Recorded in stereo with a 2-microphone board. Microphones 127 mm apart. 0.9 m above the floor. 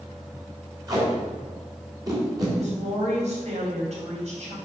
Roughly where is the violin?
No violin in this recording.